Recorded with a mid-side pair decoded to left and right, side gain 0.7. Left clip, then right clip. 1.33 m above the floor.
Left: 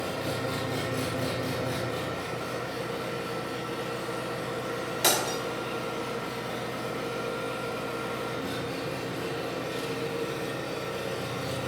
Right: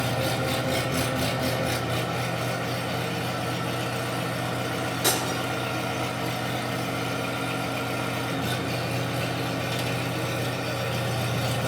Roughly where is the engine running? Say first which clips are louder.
Right 5 dB; ahead right.